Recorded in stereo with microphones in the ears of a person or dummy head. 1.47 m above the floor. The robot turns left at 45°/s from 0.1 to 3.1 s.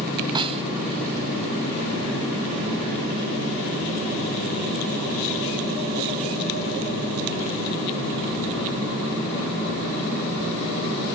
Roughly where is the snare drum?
Right.